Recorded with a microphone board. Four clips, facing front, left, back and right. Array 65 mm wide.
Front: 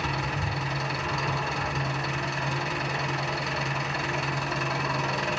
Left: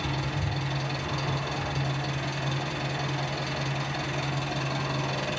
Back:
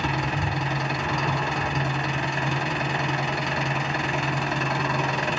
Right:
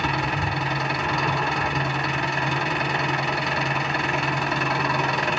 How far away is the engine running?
About 1.7 m.